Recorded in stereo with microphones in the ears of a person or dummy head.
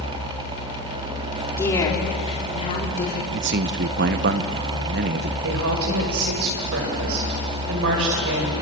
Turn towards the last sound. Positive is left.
turn(degrees=-75)  # may be behind; listen again after turning